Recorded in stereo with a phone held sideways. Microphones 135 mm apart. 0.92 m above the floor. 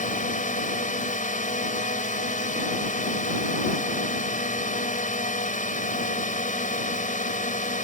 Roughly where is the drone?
Left.